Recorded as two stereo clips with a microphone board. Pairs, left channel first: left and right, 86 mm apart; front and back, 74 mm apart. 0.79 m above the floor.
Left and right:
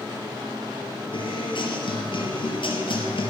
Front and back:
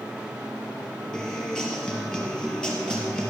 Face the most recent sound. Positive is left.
turn(degrees=80)